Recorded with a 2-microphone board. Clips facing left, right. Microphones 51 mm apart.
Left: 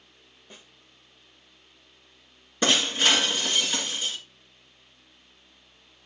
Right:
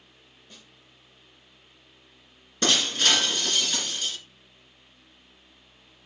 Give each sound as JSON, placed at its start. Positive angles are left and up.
{"t": 0.5, "sound": "a snare drum", "side_deg": 30, "distance_m": 1.0}
{"t": 2.6, "sound": "breaking glass", "side_deg": 15, "distance_m": 2.0}